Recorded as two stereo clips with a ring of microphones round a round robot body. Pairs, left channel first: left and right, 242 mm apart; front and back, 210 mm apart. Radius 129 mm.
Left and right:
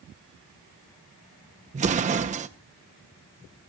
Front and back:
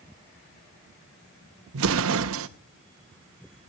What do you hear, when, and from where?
1.7 s an explosion: 150° right, 0.7 m